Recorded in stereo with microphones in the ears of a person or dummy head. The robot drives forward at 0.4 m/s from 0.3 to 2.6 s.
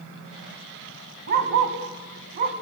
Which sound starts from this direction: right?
A dog barking, at 1.3 s.